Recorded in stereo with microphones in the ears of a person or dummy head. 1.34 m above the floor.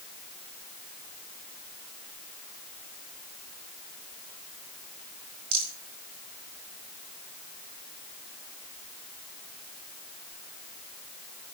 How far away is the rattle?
About 4.5 m.